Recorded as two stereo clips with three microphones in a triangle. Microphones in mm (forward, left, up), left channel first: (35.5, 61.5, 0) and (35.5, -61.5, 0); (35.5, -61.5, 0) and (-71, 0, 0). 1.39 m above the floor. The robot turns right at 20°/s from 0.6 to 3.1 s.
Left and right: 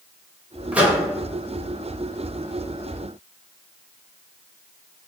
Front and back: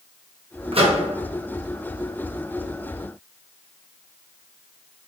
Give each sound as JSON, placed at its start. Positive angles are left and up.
{"t": 0.7, "sound": "a microwave", "azimuth_deg": -170, "distance_m": 0.9}